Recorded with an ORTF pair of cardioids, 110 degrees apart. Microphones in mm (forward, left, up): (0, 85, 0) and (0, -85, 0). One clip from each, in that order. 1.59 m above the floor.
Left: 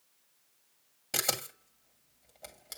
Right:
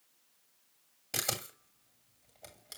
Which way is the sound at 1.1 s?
15° left.